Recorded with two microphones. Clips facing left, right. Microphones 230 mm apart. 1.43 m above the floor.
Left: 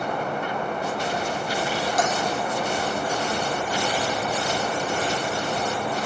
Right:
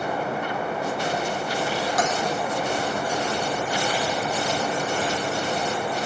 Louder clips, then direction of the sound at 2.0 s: Left 1 dB; 25° left (ahead or behind).